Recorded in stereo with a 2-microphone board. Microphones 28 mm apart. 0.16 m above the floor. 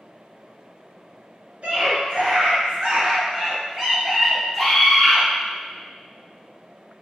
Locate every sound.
1.6 s a scream: 55° right (ahead or behind), 1.8 m; by 5.2 s 10° left (ahead or behind), 1.4 m